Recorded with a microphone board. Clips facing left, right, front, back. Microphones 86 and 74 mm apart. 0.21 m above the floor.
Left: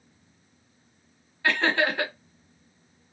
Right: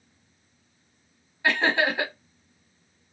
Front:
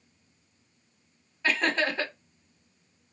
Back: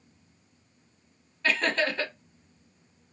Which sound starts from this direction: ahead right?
Laughter, at 1.4 s.